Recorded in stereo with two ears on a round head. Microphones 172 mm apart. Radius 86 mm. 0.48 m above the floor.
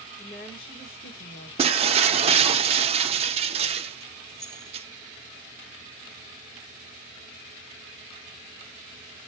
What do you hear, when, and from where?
0.2 s a woman speaking: 30° left (ahead or behind), 1.5 m; by 1.5 s 50° left (ahead or behind), 1.8 m
1.6 s breaking glass: 30° right (ahead or behind), 0.7 m
4.3 s keys jangling: 5° left (ahead or behind), 2.5 m